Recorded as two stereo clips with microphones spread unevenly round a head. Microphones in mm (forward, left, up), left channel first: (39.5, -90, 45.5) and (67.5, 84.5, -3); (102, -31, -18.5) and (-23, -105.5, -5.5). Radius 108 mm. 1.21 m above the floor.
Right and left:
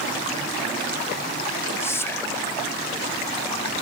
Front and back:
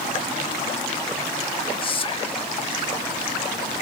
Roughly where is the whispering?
Ahead.